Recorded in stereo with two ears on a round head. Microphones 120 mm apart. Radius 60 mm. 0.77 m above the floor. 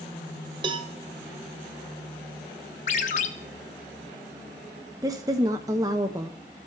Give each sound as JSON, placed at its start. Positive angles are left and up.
{"t": 0.6, "sound": "a cowbell", "side_deg": -40, "distance_m": 0.7}
{"t": 2.9, "sound": "a ringtone", "side_deg": 60, "distance_m": 0.8}
{"t": 5.0, "sound": "a woman speaking", "side_deg": -25, "distance_m": 0.7}